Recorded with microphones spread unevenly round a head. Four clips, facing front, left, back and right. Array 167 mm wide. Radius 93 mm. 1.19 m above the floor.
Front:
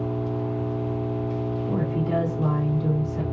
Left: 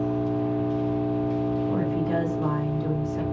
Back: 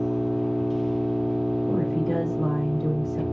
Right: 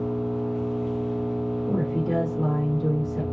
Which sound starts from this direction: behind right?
A woman speaking, at 1.7 s.